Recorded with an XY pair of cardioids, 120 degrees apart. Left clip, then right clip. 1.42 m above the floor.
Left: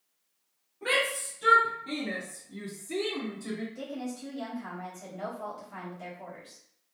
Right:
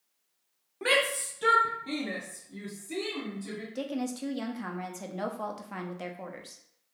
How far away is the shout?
About 0.7 m.